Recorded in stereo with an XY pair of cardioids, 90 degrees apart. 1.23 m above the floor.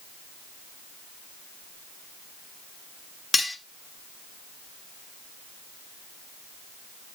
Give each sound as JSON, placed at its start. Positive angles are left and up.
{"t": 3.3, "sound": "cutlery clinking", "azimuth_deg": 15, "distance_m": 1.2}